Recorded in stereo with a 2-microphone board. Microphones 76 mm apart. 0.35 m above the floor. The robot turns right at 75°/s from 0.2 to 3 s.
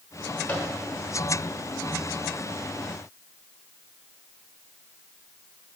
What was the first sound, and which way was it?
A microwave, 25° left (ahead or behind).